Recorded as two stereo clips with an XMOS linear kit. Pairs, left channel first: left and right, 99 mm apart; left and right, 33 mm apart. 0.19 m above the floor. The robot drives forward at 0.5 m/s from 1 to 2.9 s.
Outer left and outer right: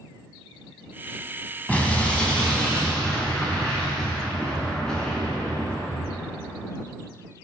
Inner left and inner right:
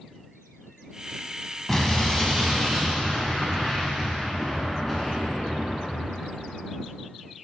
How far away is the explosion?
About 0.5 m.